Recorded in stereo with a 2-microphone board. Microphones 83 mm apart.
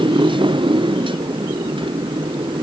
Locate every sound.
0.0 s a motorcycle: 80° right